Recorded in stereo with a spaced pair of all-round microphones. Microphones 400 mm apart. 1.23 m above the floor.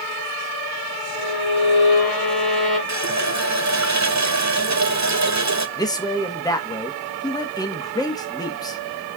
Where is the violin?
65° left (ahead or behind), 3.5 m.